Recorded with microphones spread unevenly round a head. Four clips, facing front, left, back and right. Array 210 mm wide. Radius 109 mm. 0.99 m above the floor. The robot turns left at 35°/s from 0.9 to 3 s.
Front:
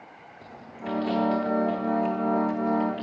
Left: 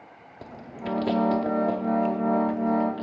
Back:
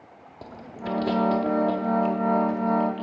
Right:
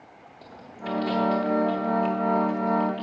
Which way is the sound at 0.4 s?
130° left.